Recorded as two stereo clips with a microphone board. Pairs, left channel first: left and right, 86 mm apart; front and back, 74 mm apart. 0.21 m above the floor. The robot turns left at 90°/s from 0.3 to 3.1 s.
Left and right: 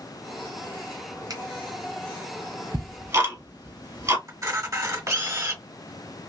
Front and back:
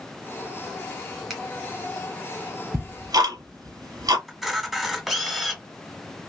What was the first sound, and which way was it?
A finger snap, 95° right.